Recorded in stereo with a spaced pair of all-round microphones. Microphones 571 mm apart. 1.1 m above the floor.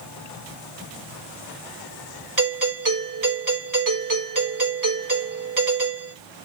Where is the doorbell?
35° right (ahead or behind), 5 m.